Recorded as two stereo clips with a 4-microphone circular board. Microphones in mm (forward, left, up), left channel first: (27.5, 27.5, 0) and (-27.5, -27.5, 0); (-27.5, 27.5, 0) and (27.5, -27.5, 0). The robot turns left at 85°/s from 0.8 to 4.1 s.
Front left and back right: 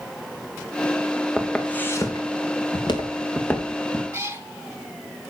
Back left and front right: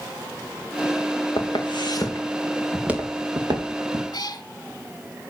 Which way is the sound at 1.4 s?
145° left.